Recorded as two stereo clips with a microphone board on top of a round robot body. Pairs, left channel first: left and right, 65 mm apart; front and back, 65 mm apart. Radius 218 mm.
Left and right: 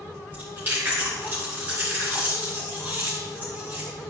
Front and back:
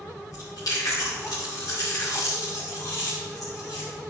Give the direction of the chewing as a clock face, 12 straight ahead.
1 o'clock.